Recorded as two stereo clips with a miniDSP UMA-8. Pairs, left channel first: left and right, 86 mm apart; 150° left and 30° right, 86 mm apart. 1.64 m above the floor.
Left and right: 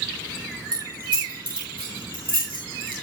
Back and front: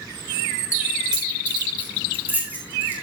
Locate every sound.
0.7 s keys jangling: 110° right, 7 m; by 2.9 s 95° right, 9 m